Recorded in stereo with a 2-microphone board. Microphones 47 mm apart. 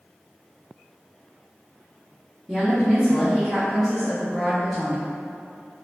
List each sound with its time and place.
2.5 s a woman speaking: 5° left (ahead or behind), 1.1 m